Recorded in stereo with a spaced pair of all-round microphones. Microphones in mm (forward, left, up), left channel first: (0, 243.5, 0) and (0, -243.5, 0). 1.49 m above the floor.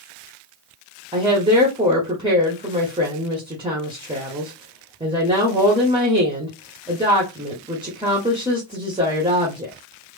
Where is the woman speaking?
10° right (ahead or behind), 0.9 m.